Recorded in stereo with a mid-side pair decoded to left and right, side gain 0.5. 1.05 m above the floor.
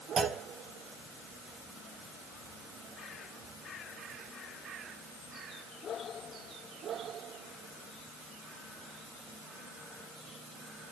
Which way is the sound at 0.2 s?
45° right.